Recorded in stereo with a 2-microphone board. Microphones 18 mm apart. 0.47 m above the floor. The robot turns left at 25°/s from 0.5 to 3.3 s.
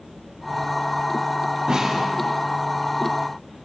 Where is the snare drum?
65° right (ahead or behind), 6 m; by 2.0 s 55° right (ahead or behind), 6 m.